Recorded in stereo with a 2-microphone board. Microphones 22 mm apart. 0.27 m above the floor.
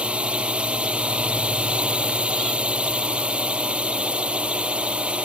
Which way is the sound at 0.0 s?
55° right (ahead or behind).